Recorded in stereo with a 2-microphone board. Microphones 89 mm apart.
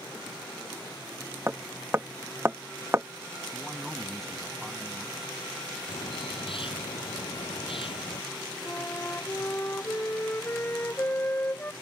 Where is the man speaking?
5° left (ahead or behind).